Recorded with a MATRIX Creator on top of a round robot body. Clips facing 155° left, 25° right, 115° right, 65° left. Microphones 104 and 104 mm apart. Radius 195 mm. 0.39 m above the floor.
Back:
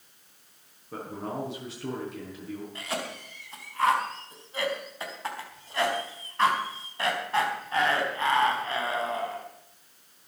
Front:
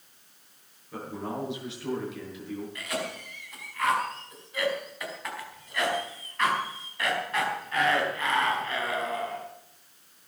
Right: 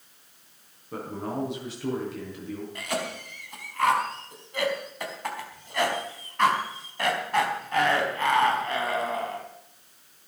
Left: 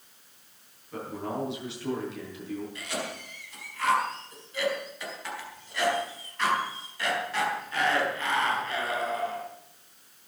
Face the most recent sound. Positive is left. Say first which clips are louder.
# front 1 dB, right 4 dB
turn(degrees=-145)